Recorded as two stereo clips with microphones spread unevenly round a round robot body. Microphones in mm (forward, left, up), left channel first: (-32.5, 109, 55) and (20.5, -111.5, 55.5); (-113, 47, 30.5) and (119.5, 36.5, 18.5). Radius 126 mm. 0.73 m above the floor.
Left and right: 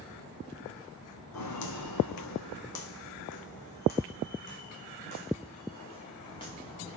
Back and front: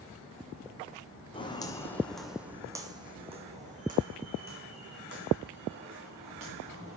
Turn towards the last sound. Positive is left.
turn(degrees=30)